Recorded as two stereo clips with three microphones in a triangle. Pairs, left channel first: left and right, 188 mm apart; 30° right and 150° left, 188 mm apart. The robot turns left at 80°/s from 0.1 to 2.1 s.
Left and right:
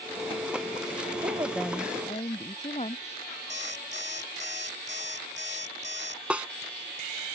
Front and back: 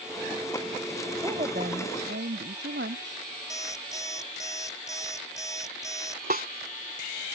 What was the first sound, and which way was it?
A woman speaking, 145° right.